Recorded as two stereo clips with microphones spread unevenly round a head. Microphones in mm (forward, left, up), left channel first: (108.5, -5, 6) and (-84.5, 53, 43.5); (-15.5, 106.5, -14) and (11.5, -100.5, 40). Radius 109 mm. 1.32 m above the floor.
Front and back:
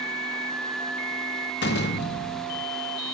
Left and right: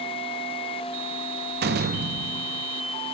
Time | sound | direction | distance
1.6 | a door slam | 65° right | 1.0 m